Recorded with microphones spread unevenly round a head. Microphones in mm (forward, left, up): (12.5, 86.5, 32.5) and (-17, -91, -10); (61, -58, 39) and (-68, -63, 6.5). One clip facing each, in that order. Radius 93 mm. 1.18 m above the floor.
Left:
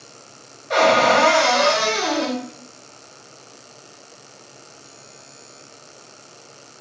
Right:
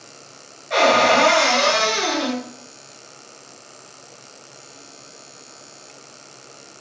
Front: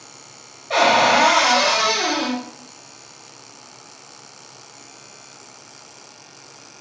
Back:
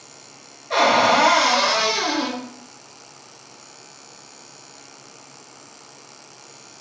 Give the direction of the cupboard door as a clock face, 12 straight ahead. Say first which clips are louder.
Even, front 1 dB; 9 o'clock.